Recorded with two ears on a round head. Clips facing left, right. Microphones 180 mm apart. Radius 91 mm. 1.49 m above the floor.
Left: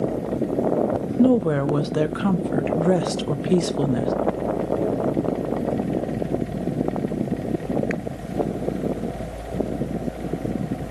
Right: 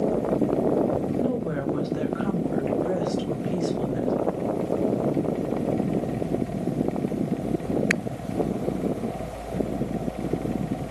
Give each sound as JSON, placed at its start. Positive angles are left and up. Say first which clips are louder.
{"t": 1.2, "sound": "a woman speaking", "louder": "left 8 dB", "side_deg": 70, "distance_m": 0.8}